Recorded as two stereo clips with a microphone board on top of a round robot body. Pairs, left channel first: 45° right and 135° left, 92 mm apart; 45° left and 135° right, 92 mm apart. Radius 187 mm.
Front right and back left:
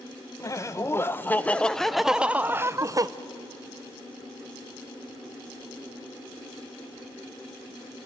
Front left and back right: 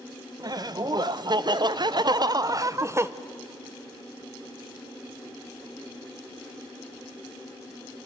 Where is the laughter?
95° right, 1.3 m; by 3.1 s 170° left, 0.9 m.